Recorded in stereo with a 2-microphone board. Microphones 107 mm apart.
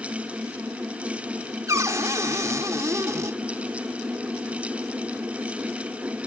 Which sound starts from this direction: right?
A cupboard door, at 1.7 s.